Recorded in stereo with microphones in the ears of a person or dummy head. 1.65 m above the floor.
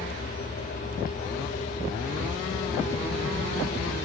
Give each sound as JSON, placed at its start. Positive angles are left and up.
{"t": 0.0, "sound": "a fan", "side_deg": 35, "distance_m": 1.6}